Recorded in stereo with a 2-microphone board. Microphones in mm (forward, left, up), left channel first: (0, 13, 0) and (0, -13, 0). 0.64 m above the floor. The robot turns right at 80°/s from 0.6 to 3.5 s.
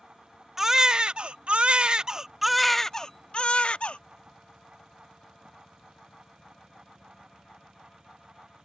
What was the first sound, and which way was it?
A baby crying, 160° right.